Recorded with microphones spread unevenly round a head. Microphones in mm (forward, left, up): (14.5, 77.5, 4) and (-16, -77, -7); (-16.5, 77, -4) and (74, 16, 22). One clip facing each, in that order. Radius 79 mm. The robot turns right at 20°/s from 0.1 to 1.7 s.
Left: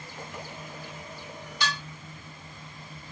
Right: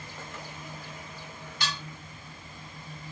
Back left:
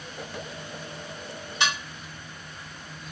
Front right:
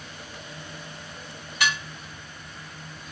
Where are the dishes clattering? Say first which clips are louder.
Left 3 dB, front right 1 dB; 80° left, 2.0 m.